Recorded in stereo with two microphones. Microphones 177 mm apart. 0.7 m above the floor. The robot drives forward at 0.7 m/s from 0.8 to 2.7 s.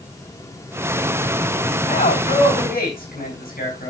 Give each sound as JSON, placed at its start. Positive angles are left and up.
{"t": 1.9, "sound": "a man speaking", "side_deg": 50, "distance_m": 4.5}